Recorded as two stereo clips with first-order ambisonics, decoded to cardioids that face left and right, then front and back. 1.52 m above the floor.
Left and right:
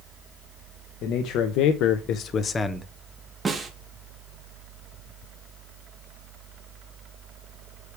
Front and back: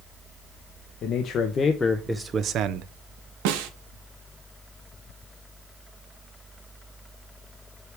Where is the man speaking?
55° left, 1.0 m; by 2.9 s straight behind, 0.6 m.